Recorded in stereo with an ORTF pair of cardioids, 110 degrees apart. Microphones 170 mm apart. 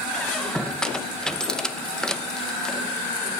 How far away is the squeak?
About 0.9 m.